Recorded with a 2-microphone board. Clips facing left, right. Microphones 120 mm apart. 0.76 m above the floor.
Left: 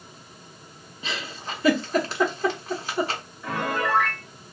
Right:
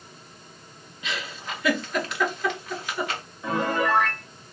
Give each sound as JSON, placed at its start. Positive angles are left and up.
{"t": 1.0, "sound": "a giggle", "side_deg": 30, "distance_m": 0.7}
{"t": 3.4, "sound": "a piano", "side_deg": -20, "distance_m": 1.1}